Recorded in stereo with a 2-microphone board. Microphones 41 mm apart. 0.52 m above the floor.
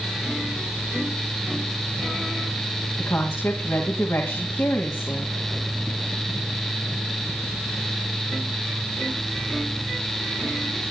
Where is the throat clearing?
No throat clearing in this recording.